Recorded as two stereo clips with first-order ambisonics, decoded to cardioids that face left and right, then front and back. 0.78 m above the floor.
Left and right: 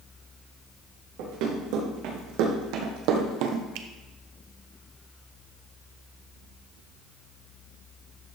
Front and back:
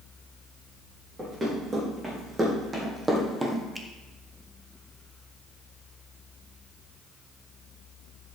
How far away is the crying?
No crying in this recording.